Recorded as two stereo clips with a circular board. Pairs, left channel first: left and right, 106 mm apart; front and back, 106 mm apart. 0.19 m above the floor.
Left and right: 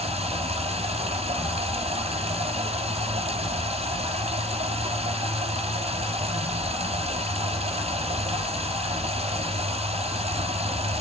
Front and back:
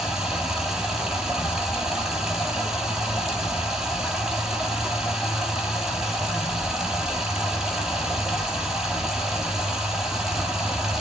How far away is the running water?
About 1.7 m.